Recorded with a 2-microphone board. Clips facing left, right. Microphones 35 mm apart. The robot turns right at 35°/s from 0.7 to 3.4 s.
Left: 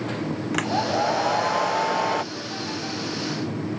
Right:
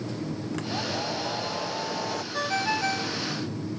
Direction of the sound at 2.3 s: 90° right.